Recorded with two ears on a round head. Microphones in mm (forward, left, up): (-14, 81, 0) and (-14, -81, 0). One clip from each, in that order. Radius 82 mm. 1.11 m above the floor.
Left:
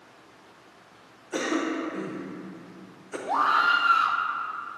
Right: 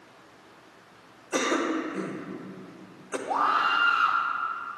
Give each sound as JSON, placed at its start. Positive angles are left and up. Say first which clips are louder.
{"t": 1.3, "sound": "a cough", "louder": "right 2 dB", "side_deg": -20, "distance_m": 0.9}
{"t": 3.3, "sound": "a scream", "louder": "left 2 dB", "side_deg": 30, "distance_m": 0.8}